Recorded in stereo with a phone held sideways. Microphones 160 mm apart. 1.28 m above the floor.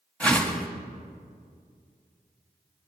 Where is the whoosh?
5° left (ahead or behind), 1.7 m.